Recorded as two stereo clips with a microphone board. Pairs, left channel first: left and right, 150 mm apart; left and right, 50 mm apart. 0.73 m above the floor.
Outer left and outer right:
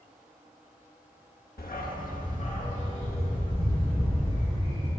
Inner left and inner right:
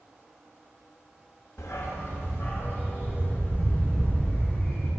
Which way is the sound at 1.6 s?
85° left.